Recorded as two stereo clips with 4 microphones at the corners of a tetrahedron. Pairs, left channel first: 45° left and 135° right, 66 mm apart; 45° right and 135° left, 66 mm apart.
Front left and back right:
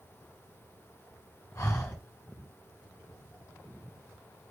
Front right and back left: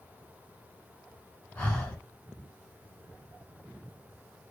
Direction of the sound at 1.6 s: 25° left.